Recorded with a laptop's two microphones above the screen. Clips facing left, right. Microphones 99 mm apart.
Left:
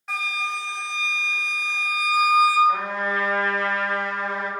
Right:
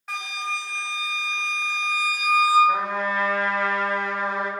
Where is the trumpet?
70° right (ahead or behind), 1.0 m.